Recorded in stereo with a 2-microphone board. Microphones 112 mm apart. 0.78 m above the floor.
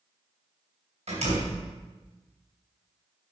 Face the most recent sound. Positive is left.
turn(degrees=-80)